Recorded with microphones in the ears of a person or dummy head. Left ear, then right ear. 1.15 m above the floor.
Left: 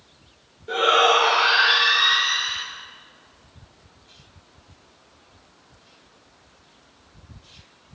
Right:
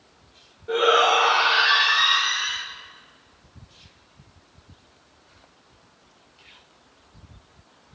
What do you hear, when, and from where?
0.7 s a shout: 5° left (ahead or behind), 1.4 m; by 2.6 s 40° right (ahead or behind), 1.3 m